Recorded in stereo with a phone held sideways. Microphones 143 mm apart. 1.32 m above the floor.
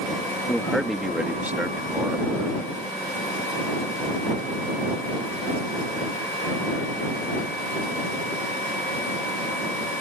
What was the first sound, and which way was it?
A man speaking, 5° left (ahead or behind).